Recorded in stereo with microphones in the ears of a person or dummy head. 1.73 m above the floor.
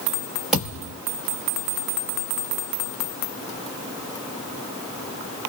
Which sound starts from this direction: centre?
A thud, at 0.5 s.